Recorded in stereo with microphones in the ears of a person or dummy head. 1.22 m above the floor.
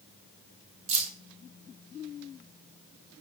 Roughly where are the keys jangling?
Right.